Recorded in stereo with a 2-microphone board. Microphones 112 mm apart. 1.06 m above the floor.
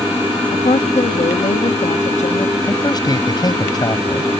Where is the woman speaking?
85° left.